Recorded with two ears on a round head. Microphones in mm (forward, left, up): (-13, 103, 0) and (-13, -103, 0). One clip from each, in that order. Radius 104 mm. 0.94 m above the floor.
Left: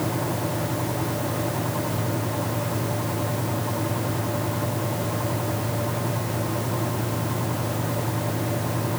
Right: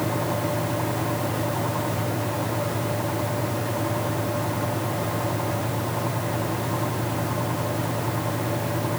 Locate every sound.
Only background noise.